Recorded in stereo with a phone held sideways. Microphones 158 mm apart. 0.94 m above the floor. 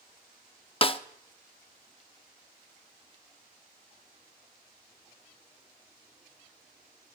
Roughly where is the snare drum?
Left.